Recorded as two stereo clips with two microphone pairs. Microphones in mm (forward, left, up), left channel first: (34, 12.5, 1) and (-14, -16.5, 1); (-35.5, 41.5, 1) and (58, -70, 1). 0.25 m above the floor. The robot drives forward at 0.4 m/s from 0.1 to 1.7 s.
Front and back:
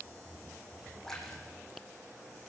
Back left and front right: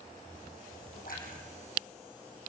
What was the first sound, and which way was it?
A splash, 115° left.